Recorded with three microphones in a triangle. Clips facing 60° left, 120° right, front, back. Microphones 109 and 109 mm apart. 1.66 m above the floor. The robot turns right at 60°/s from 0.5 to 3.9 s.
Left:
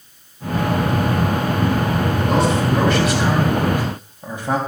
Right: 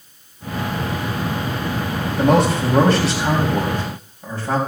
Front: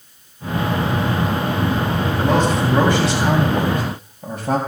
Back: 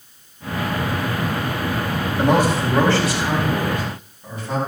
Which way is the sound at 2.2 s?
115° right.